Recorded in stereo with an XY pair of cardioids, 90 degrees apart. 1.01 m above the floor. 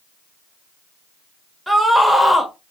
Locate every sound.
1.7 s a scream: straight ahead, 1.0 m